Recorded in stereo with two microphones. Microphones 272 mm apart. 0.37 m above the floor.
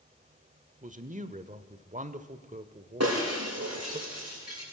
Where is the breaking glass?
65° right (ahead or behind), 9.5 m.